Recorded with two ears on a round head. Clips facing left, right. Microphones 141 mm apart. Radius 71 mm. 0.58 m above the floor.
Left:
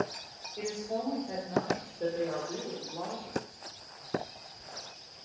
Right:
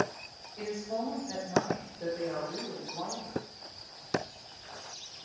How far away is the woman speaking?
About 2.5 m.